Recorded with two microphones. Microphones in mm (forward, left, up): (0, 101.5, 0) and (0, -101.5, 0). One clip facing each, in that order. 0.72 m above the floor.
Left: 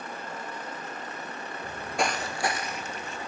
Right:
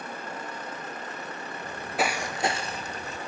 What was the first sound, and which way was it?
Footsteps, 10° left (ahead or behind).